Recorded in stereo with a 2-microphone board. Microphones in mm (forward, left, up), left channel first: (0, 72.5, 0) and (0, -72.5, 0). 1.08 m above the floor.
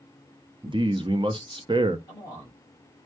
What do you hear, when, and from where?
0.6 s a man speaking: 35° right (ahead or behind), 0.7 m
2.1 s a man speaking: 30° left (ahead or behind), 3.5 m